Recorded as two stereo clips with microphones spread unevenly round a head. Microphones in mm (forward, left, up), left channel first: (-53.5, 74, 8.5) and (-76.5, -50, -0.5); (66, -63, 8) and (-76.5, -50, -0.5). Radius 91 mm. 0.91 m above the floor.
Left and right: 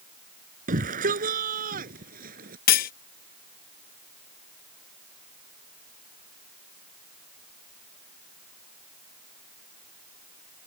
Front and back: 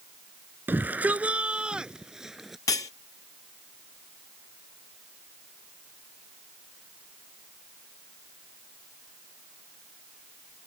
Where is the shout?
110° right; by 2.6 s 95° right.